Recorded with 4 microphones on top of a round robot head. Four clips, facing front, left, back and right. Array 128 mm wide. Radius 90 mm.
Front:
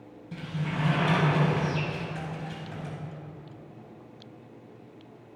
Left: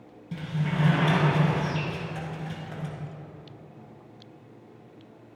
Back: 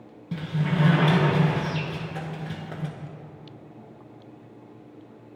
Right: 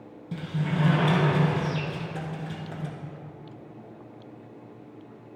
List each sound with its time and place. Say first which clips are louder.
0.3 s a sliding door: right 1 dB, back 6 dB; 160° right, 2.5 m